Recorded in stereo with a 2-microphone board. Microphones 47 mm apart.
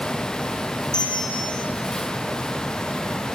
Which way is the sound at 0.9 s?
65° right (ahead or behind).